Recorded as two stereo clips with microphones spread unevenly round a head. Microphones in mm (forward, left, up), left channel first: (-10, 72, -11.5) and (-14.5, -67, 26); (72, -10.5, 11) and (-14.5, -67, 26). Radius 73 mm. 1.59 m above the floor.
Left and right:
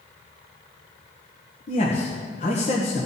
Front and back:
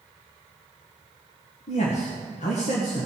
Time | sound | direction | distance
1.7 | a man speaking | 45° left | 1.8 m